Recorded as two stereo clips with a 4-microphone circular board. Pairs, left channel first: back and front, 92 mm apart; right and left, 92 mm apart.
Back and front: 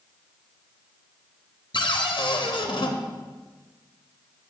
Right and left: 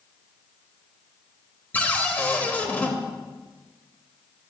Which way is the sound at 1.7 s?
160° right.